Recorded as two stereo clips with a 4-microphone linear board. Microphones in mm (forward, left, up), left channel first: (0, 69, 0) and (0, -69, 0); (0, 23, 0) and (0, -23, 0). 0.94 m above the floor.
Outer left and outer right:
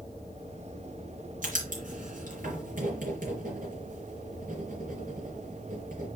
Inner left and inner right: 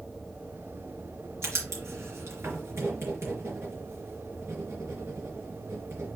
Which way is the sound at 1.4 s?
70° right (ahead or behind).